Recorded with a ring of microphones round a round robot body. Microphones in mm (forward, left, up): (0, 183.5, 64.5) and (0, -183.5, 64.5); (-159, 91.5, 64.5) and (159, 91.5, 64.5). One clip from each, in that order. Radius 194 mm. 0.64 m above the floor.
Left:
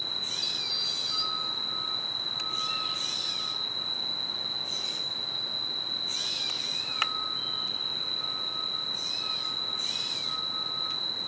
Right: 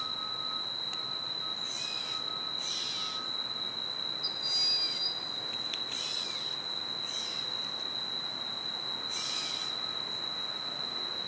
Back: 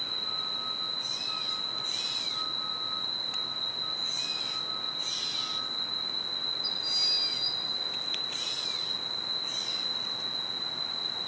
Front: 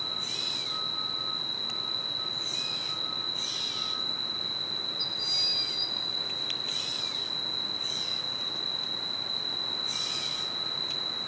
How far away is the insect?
About 1.7 m.